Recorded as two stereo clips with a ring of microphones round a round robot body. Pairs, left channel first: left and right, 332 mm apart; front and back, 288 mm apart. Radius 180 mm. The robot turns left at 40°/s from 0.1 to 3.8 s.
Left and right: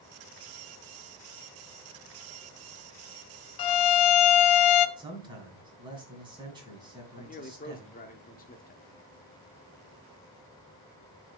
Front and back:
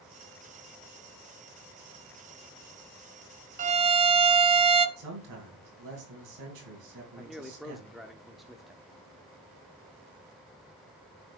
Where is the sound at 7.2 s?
90° left, 0.9 m.